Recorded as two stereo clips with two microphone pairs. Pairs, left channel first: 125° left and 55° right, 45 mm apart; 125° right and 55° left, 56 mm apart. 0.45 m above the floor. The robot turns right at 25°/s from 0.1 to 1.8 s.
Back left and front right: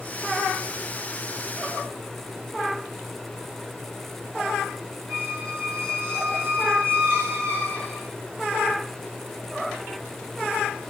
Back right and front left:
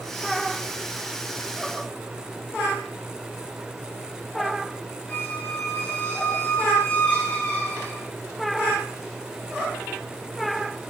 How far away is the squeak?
About 3 m.